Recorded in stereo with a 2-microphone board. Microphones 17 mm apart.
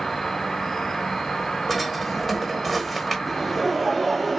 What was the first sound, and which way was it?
An insect, 35° left (ahead or behind).